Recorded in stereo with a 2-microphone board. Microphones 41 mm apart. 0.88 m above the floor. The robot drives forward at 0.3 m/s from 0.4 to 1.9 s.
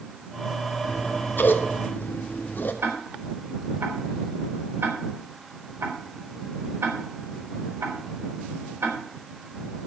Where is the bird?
I don't hear a bird.